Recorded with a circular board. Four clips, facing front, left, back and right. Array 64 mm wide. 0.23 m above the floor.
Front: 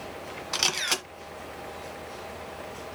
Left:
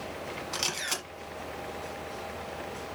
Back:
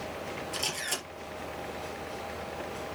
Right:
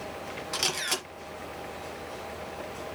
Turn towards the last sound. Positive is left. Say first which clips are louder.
# right 4 dB, front 10 dB
turn(degrees=-10)